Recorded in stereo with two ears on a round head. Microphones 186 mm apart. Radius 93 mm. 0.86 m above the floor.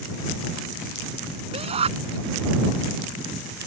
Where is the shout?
30° right (ahead or behind).